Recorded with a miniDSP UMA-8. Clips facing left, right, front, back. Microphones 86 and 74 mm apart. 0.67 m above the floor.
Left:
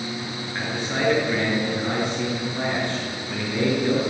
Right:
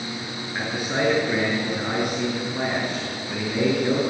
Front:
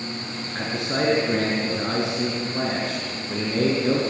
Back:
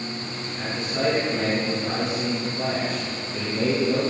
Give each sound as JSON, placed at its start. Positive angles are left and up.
{"t": 0.6, "sound": "a man speaking", "azimuth_deg": -10, "distance_m": 8.5}